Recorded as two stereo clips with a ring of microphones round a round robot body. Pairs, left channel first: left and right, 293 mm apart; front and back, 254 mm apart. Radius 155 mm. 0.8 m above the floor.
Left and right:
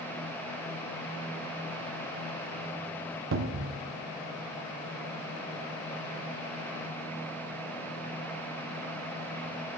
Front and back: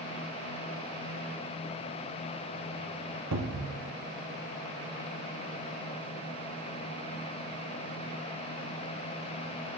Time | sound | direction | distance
3.3 | a cupboard door | 140° right | 0.7 m